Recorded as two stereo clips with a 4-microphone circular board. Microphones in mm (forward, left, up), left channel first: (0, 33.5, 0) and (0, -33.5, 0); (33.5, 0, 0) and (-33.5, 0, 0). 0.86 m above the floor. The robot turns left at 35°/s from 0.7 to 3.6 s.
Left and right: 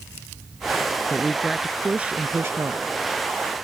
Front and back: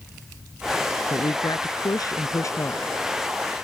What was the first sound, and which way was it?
A woman speaking, 10° left.